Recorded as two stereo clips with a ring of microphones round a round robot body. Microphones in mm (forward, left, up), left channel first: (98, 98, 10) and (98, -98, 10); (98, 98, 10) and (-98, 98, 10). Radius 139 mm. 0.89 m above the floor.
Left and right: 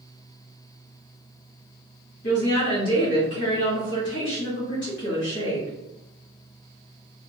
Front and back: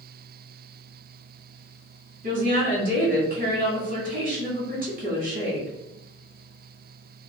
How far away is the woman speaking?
About 1.9 m.